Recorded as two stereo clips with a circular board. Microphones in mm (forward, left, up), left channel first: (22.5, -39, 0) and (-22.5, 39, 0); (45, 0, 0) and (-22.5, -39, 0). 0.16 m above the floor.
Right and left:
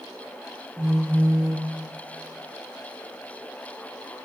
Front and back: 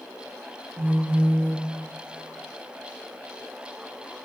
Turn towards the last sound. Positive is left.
turn(degrees=165)